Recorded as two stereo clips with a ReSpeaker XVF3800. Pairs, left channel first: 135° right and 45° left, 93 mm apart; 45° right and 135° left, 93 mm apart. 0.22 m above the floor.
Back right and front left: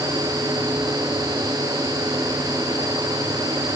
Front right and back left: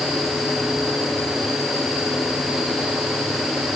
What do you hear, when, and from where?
Only background noise.